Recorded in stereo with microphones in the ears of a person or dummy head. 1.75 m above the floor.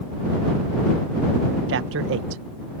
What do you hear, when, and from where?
1.7 s a man speaking: 70° right (ahead or behind)